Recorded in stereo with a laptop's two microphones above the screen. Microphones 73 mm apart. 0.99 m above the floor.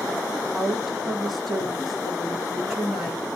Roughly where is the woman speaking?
Centre.